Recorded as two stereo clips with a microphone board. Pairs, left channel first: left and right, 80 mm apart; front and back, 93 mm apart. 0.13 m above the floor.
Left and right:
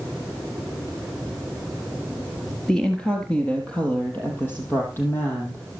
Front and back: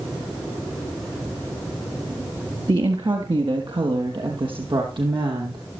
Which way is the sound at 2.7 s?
170° left.